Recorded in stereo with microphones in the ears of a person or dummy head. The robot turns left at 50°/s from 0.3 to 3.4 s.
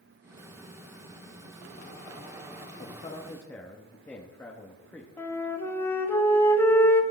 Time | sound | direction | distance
2.8 | a man speaking | 40° left | 1.4 m
5.2 | a flute | 15° left (ahead or behind) | 1.8 m